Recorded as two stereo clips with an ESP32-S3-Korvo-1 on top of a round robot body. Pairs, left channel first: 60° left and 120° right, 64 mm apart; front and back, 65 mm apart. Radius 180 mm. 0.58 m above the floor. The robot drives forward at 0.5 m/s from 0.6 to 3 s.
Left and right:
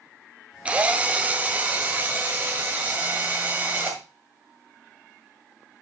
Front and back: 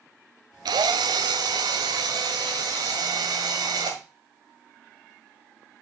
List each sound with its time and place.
0.7 s a drill: 165° left, 0.7 m; by 4.0 s 175° left, 1.8 m